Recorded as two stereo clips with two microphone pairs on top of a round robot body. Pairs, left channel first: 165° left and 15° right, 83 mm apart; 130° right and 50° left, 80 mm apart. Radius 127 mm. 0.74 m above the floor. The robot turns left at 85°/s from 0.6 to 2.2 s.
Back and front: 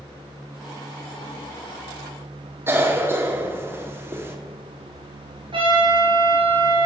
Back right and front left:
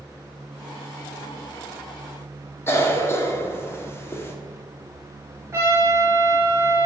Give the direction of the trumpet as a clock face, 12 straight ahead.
12 o'clock.